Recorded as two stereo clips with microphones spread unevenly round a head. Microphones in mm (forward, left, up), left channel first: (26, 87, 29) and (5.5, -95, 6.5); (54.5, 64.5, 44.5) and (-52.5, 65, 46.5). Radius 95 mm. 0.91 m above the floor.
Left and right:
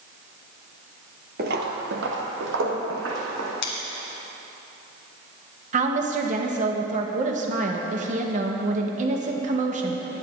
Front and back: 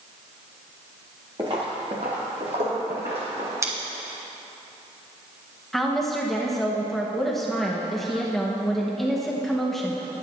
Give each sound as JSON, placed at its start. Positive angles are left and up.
{"t": 1.4, "sound": "footsteps", "azimuth_deg": -125, "distance_m": 1.1}
{"t": 3.6, "sound": "scissors", "azimuth_deg": 120, "distance_m": 2.0}
{"t": 5.7, "sound": "a woman speaking", "azimuth_deg": -90, "distance_m": 1.1}